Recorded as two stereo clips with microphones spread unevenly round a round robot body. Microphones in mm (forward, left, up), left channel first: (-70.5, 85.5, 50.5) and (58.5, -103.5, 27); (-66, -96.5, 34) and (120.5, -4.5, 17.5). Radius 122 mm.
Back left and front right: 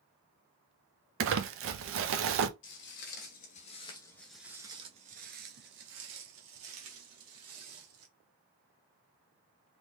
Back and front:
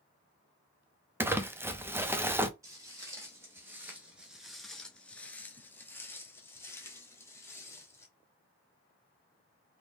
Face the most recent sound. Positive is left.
turn(degrees=-80)